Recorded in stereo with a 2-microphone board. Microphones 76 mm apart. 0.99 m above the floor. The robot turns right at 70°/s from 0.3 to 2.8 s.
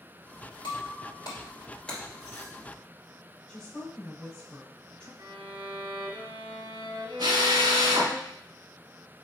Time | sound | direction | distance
0.6 | breaking glass | 80° left | 2.5 m
3.5 | a woman speaking | 10° left (ahead or behind) | 4 m
5.2 | a violin | 75° right (ahead or behind) | 2 m
7.2 | a drill | 70° right (ahead or behind) | 2 m